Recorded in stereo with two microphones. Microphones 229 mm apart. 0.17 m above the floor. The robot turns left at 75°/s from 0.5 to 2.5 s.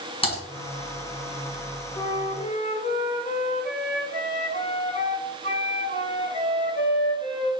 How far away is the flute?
About 1.3 m.